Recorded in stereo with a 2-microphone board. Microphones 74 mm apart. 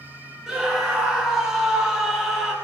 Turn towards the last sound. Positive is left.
turn(degrees=-5)  # may be behind; listen again after turning